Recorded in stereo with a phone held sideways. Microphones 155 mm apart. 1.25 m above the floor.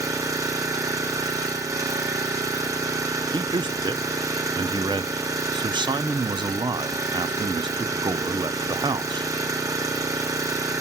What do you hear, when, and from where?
0.0 s an engine running: 20° right (ahead or behind), 0.9 m
3.3 s a man speaking: 30° right (ahead or behind), 0.5 m